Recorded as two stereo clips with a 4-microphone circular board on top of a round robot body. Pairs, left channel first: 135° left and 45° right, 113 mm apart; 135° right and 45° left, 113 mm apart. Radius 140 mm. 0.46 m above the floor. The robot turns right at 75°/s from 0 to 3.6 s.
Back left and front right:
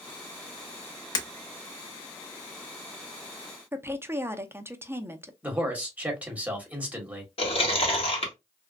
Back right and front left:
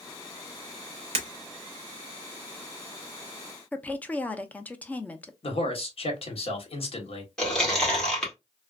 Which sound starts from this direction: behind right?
A man speaking, at 5.4 s.